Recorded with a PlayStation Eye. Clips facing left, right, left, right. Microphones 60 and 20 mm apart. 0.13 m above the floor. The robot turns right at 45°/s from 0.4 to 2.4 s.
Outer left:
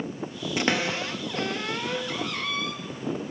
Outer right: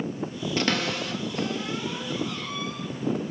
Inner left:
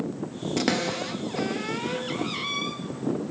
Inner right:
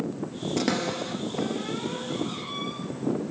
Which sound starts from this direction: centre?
A cupboard door, at 0.6 s.